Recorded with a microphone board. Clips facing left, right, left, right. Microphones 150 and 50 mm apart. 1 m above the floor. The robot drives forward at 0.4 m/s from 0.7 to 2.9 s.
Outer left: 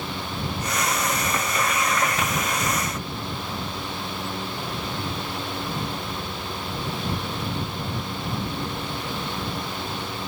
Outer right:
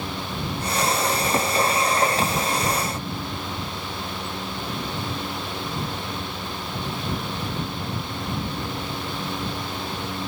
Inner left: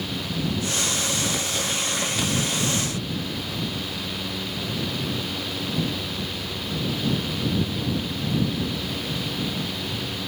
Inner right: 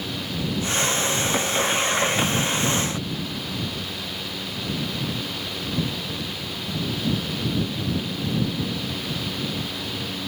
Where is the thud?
No thud in this recording.